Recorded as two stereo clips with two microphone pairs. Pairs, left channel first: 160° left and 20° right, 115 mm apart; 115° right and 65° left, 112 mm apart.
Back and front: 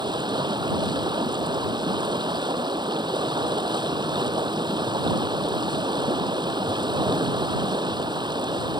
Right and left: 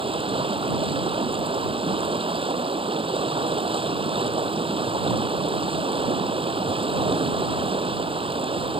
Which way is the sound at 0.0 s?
30° left.